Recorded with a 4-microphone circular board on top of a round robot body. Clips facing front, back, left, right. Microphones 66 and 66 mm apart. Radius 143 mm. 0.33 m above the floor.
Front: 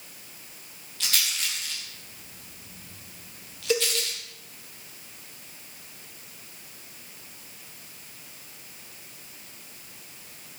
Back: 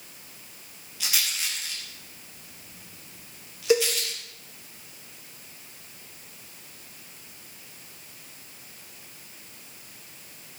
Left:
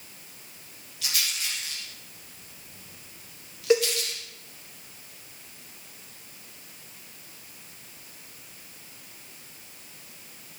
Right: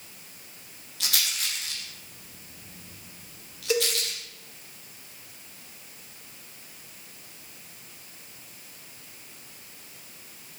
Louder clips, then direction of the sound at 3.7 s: Back 5 dB, left 5 dB; 135° left.